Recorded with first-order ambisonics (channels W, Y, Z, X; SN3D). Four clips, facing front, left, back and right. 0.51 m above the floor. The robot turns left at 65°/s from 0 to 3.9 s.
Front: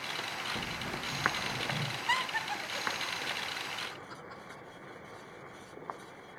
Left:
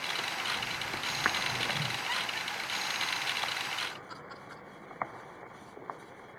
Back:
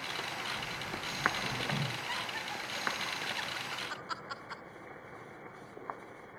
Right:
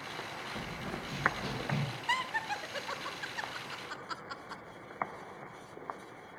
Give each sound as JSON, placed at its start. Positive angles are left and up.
{"t": 0.6, "sound": "running footsteps", "azimuth_deg": -20, "distance_m": 4.0}
{"t": 2.1, "sound": "laughter", "azimuth_deg": -30, "distance_m": 1.4}